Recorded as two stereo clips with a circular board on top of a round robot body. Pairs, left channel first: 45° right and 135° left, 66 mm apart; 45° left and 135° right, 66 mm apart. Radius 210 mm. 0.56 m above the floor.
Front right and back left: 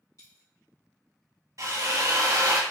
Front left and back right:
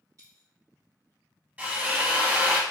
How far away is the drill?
About 1.0 m.